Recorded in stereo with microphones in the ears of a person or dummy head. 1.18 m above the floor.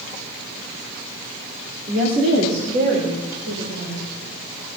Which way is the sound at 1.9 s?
55° right (ahead or behind).